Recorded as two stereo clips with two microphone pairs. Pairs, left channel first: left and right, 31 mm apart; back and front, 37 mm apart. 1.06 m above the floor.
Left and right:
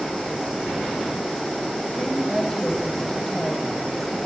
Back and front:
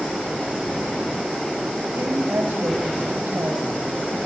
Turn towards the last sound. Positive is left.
turn(degrees=10)